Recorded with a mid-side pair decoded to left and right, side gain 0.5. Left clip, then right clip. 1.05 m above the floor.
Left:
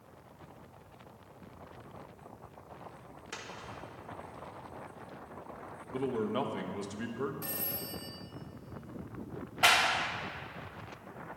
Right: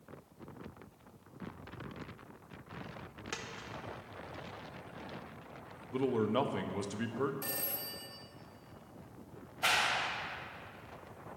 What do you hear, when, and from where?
3.3 s a dropped coin: 35° right, 1.3 m
5.9 s a man speaking: 20° right, 0.9 m
7.4 s a phone ringing: 25° right, 1.6 m
9.6 s a clap: 60° left, 0.9 m